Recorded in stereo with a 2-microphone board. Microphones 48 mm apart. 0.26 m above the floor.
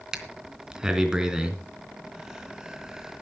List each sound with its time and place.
0.1 s breathing: 10° right (ahead or behind), 3 m